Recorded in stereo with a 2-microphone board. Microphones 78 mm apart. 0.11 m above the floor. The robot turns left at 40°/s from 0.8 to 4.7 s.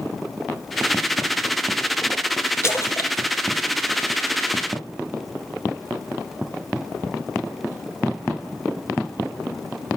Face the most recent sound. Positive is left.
turn(degrees=50)  # may be behind; listen again after turning